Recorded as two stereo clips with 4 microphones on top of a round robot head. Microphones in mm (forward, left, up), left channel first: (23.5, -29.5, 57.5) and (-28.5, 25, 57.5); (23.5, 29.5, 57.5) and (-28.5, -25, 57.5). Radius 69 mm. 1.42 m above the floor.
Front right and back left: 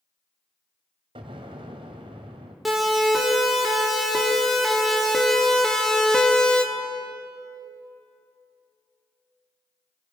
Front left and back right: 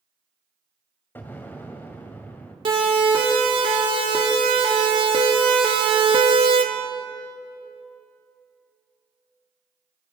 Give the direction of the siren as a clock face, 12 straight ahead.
5 o'clock.